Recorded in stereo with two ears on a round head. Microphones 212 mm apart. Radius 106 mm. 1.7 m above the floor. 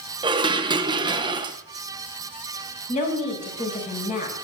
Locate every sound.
0.2 s dishes clattering: 20° right (ahead or behind), 0.7 m
2.9 s a woman speaking: 30° left (ahead or behind), 6.5 m